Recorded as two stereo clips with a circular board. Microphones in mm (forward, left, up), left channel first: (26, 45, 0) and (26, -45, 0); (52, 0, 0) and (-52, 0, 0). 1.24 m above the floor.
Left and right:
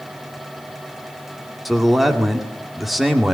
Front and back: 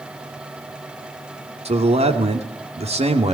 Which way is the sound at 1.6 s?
Straight behind.